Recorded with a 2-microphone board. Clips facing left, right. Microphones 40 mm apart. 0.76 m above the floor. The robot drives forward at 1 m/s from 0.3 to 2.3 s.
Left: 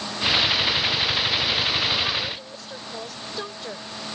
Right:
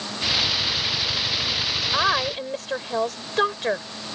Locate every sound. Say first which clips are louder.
1.9 s a woman speaking: right 4 dB; 55° right (ahead or behind); by 3.9 s 60° right (ahead or behind)